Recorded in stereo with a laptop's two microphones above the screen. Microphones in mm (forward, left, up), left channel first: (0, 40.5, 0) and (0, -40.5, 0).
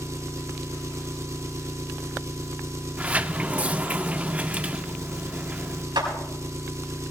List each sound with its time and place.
0.0 s an engine running: 35° right (ahead or behind), 0.9 m
3.0 s a sliding door: 20° right (ahead or behind), 0.6 m
6.0 s a clap: 75° right (ahead or behind), 5.5 m